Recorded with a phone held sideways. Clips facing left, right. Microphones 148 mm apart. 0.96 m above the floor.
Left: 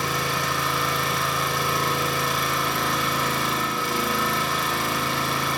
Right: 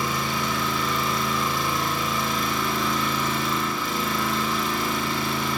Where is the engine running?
80° left, 1.8 m.